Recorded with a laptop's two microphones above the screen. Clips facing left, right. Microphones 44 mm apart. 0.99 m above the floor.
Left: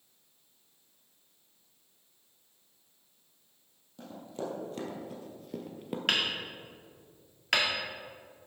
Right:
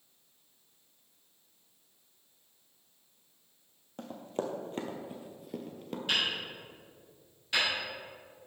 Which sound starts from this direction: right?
Running footsteps, at 4.0 s.